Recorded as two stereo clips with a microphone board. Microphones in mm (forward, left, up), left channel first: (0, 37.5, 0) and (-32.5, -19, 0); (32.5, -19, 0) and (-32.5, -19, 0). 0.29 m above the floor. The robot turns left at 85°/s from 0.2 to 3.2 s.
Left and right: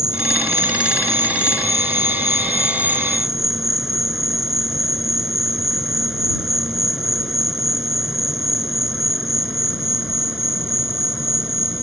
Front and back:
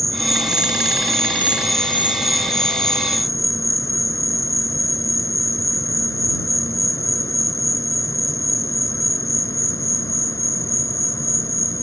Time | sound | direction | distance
0.0 | an insect | 140° right | ?